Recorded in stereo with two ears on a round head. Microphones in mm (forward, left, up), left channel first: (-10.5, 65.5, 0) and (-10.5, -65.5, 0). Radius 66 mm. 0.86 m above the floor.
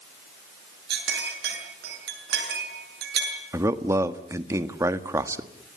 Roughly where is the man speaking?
Right.